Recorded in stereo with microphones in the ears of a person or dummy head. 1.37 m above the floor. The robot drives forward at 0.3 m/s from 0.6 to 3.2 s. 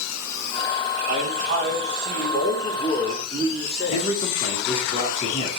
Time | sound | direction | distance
1.1 | a man speaking | 45° right (ahead or behind) | 1.5 m
3.9 | a man speaking | 35° left (ahead or behind) | 0.9 m